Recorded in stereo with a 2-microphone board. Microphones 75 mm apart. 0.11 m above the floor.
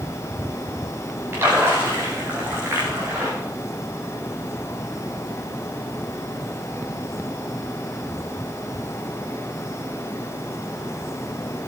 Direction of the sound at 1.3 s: 30° right (ahead or behind).